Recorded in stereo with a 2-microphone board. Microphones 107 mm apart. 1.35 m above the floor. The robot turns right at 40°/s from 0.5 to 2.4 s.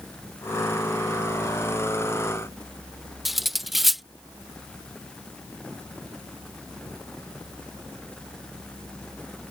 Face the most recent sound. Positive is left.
turn(degrees=0)  # may be behind; listen again after turning